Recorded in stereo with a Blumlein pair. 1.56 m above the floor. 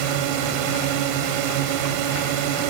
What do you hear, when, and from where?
0.0 s a drone: 45° right